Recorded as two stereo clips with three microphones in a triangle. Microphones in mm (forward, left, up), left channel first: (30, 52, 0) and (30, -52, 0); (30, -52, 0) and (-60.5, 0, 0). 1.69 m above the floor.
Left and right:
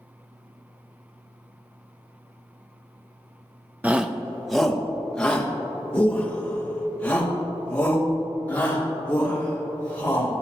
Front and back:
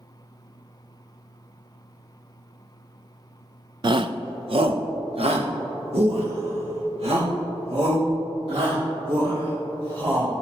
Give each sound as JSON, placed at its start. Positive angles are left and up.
{"t": 3.8, "sound": "a shout", "azimuth_deg": -165, "distance_m": 0.5}